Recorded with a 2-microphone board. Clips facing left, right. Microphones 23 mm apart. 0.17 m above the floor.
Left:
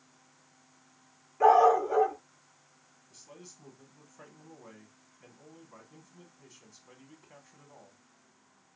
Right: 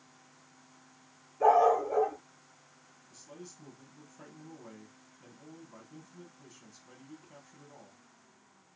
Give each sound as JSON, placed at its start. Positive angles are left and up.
{"t": 1.4, "sound": "a dog barking", "side_deg": 55, "distance_m": 1.0}
{"t": 3.1, "sound": "a man speaking", "side_deg": 15, "distance_m": 1.0}